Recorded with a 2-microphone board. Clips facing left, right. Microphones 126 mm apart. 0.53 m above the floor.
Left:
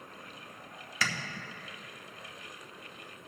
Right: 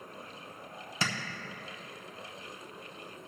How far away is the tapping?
About 0.9 m.